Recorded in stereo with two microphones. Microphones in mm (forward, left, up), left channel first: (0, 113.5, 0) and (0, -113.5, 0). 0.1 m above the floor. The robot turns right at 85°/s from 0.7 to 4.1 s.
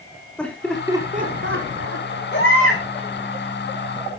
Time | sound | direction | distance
0.4 | laughter | 5° left (ahead or behind) | 4.5 m
2.3 | a baby crying | 50° left | 7.5 m